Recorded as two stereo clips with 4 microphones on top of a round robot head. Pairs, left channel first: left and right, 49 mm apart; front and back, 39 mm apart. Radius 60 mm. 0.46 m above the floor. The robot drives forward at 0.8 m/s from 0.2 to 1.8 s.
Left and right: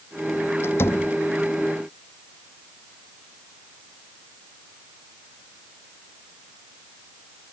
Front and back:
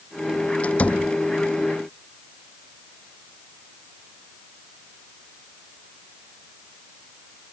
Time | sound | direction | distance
0.6 | a door slam | 55° left | ?